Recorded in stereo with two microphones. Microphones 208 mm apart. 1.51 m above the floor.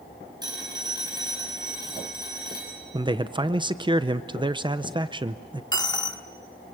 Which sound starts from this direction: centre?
A phone ringing, at 0.4 s.